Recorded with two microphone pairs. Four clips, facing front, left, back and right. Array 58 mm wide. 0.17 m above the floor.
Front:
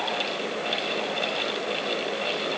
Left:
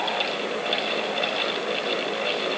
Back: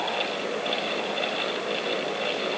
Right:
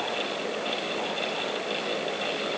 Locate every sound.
Only background noise.